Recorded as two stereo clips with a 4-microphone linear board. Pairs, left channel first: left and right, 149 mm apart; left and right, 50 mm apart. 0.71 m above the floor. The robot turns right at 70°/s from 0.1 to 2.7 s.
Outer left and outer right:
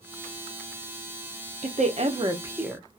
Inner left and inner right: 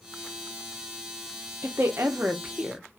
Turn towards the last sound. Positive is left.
turn(degrees=-5)